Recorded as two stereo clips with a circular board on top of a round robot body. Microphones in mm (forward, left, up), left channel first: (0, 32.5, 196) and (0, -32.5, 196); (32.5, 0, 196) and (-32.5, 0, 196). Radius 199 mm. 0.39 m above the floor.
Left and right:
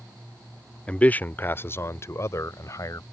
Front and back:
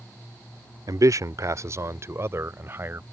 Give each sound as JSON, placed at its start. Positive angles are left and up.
{"t": 0.9, "sound": "a man speaking", "azimuth_deg": 160}